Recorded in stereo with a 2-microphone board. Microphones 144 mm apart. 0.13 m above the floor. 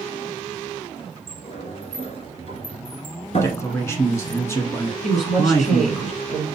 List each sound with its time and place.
1.3 s a sliding door: 50° left (ahead or behind), 1.1 m
3.4 s a man speaking: 20° left (ahead or behind), 1.0 m
5.0 s a woman speaking: 60° left (ahead or behind), 3 m